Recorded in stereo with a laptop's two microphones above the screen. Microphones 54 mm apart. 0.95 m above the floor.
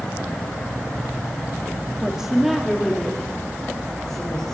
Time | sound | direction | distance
2.0 | a woman speaking | 15° right (ahead or behind) | 1.8 m